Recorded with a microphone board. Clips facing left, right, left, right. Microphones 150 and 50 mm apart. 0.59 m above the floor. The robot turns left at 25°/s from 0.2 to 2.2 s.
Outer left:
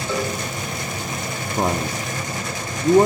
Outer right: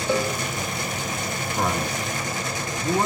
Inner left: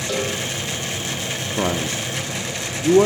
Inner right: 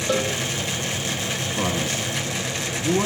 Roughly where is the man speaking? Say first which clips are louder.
Outer left 4 dB, inner left 4 dB; left.